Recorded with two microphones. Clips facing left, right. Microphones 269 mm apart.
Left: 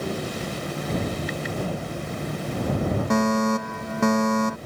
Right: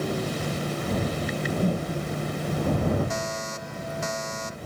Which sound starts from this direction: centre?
A whoosh, at 1.2 s.